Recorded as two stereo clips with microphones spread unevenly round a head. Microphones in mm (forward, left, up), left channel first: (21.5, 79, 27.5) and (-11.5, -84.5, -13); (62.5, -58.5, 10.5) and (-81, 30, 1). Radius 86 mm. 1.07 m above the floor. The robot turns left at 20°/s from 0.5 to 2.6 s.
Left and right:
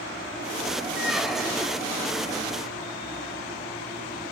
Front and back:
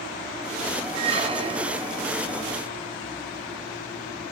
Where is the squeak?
145° left, 0.6 m; by 1.9 s 125° left, 0.6 m.